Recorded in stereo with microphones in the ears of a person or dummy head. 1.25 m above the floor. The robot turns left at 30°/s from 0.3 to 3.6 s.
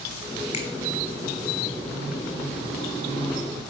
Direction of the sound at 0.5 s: 30° left (ahead or behind).